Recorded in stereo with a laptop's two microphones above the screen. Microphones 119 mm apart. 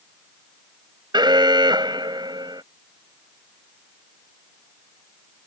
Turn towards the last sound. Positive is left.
turn(degrees=-40)  # may be behind; listen again after turning